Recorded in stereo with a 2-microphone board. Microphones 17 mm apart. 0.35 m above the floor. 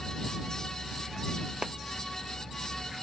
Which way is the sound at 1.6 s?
55° right (ahead or behind).